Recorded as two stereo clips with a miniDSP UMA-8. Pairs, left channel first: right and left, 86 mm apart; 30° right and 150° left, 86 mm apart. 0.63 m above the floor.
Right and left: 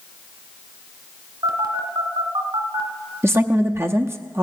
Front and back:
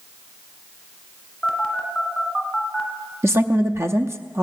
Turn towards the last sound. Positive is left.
turn(degrees=120)